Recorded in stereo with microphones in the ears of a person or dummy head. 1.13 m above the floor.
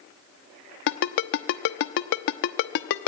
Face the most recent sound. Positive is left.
turn(degrees=60)  # may be behind; listen again after turning